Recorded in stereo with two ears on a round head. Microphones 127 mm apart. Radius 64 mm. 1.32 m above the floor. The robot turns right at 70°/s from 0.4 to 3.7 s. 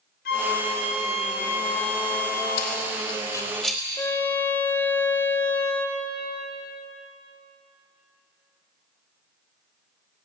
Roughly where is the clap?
No clap in this recording.